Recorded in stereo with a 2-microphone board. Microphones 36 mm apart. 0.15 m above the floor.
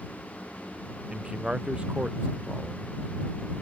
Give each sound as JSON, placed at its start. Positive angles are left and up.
{"t": 1.1, "sound": "a man speaking", "side_deg": -30}